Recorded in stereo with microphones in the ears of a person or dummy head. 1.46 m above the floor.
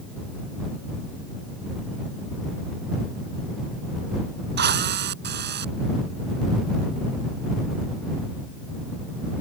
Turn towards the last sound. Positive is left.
turn(degrees=-60)  # may be behind; listen again after turning